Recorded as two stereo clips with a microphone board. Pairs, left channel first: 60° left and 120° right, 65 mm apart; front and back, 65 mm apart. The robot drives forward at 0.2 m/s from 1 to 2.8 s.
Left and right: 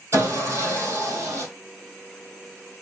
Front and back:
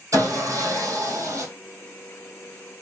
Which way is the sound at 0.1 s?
155° right.